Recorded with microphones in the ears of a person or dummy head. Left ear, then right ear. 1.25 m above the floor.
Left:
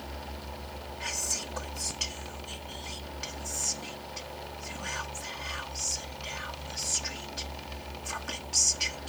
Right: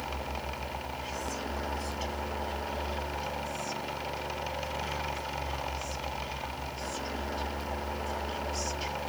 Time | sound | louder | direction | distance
1.0 | whispering | left 7 dB | 45° left (ahead or behind) | ?